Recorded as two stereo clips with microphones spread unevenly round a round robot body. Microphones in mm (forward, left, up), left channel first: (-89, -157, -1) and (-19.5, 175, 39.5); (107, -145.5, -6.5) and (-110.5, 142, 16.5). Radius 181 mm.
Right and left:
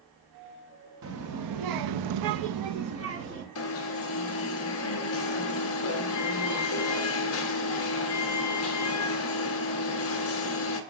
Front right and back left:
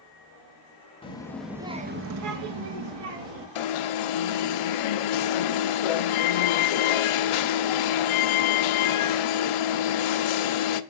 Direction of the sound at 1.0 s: 20° left.